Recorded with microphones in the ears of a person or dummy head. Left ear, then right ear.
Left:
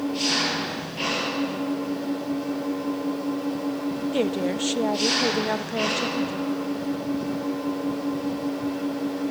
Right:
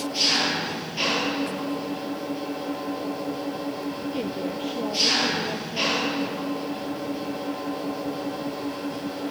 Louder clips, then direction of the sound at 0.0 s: Right 2 dB; 30° right (ahead or behind).